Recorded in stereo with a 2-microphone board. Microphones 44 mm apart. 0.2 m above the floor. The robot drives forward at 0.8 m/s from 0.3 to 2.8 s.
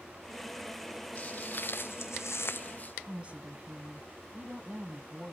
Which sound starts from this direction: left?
Footsteps, at 1.1 s.